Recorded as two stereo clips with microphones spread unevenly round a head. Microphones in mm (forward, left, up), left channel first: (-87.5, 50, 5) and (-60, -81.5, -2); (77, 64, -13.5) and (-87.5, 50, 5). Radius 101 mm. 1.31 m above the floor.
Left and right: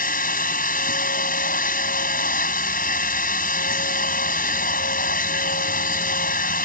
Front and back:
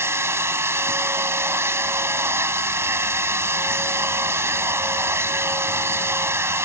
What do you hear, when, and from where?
0.0 s a machine running: 110° left